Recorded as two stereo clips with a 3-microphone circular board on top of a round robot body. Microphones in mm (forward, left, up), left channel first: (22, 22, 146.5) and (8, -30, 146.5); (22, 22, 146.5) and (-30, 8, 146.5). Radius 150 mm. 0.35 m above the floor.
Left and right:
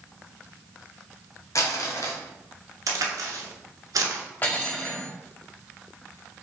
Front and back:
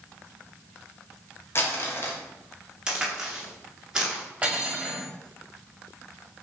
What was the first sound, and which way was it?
Crumpling, 55° left.